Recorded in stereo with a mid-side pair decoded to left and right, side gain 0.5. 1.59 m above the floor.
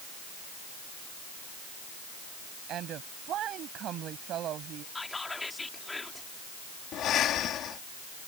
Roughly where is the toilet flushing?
No toilet flushing in this recording.